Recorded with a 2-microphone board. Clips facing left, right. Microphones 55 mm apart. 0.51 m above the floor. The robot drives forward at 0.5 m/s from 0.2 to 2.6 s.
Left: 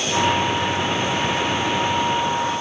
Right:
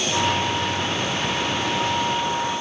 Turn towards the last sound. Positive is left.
No sound to turn to.